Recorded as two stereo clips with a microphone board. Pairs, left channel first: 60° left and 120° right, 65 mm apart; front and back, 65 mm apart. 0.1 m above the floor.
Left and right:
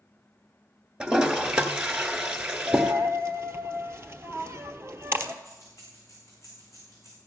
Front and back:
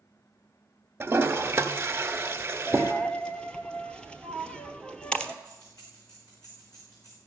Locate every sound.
1.0 s a toilet flushing: 175° left, 1.2 m
2.7 s a dropped coin: 75° right, 0.9 m
5.4 s keys jangling: 20° left, 6 m